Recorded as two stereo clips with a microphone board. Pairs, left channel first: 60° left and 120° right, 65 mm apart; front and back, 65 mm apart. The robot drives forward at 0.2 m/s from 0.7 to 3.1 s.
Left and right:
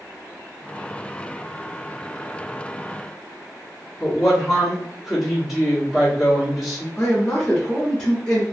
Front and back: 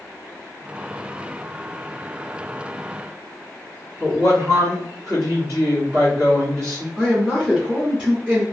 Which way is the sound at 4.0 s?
150° left.